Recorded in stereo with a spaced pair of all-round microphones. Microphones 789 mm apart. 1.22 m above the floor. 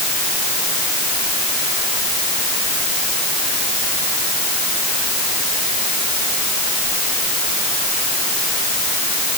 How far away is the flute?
I don't hear a flute.